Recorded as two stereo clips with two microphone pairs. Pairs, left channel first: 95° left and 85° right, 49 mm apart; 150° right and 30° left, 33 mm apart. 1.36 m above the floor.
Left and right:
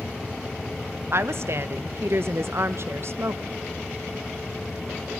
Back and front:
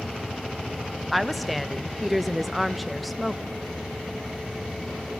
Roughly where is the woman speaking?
Ahead right.